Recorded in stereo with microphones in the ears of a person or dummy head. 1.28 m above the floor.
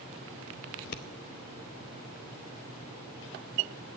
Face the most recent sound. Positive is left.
turn(degrees=45)  # may be behind; listen again after turning